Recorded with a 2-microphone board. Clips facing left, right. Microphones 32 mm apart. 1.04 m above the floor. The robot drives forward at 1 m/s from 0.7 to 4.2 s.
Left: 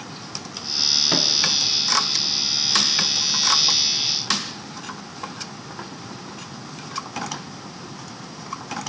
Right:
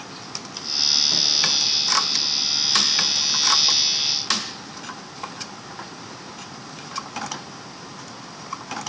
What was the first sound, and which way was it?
A microwave, 55° left (ahead or behind).